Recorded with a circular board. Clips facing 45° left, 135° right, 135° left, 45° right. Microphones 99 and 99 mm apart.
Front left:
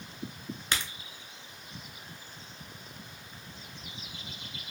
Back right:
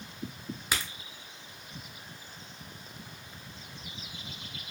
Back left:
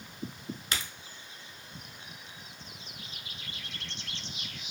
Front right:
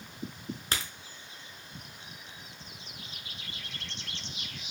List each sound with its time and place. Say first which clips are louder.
0.7 s a crack: even, front right 1 dB; 60° right, 0.6 m